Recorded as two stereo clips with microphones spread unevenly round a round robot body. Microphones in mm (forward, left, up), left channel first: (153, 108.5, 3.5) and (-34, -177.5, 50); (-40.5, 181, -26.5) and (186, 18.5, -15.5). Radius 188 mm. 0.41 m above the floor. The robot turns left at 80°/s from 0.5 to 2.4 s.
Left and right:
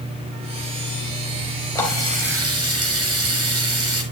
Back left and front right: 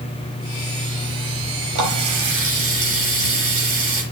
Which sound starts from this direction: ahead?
A running tap, at 1.8 s.